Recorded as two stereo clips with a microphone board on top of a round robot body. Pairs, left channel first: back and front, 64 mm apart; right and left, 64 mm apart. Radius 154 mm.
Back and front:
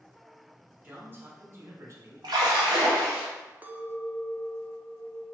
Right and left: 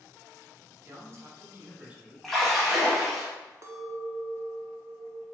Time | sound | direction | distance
0.8 | a man speaking | 60° left | 1.5 m
2.2 | a splash | straight ahead | 0.7 m
3.6 | a clink | 60° left | 0.6 m